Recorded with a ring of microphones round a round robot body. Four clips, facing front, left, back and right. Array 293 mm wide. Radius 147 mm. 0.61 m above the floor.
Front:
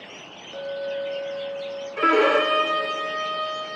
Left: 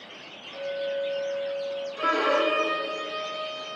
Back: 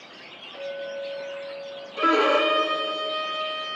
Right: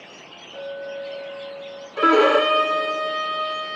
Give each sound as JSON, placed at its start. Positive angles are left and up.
{"t": 0.5, "sound": "a clink", "azimuth_deg": -15, "distance_m": 7.5}
{"t": 2.0, "sound": "a violin", "azimuth_deg": -75, "distance_m": 2.0}